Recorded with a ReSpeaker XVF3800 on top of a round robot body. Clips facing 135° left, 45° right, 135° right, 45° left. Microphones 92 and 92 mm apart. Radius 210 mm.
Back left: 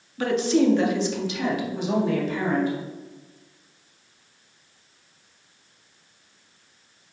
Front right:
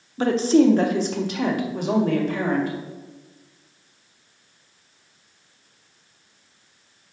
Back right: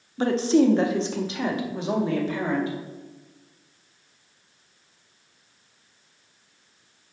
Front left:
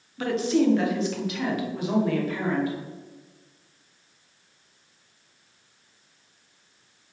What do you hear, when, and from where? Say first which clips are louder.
0.2 s a woman speaking: front right 4 dB, back right 3 dB; 90° right, 1.2 m; by 2.8 s 70° right, 2.5 m